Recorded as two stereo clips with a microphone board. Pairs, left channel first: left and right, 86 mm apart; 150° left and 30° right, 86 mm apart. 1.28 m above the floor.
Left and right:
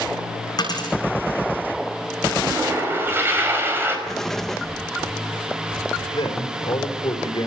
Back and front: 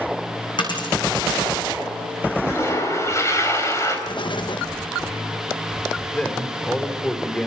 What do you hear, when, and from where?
0.6 s a dropped coin: 125° left, 5.5 m
2.4 s a toilet flushing: 155° right, 5 m
4.1 s an explosion: 175° left, 1.0 m
6.1 s a man speaking: 75° left, 4.5 m